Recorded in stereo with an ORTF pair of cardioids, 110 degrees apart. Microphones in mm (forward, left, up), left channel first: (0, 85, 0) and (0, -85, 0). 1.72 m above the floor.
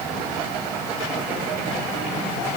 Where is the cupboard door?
No cupboard door in this recording.